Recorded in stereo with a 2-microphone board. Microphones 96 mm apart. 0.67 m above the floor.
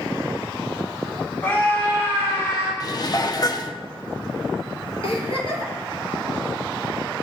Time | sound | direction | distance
1.4 | a scream | 20° left (ahead or behind) | 4 m
2.8 | dishes clattering | 45° left (ahead or behind) | 0.5 m
5.0 | a giggle | 75° left (ahead or behind) | 2.5 m